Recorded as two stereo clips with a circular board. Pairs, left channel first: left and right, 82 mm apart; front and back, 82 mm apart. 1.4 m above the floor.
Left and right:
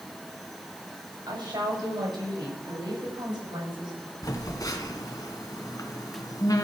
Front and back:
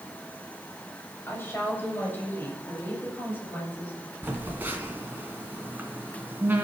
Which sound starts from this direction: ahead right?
A woman speaking, at 1.3 s.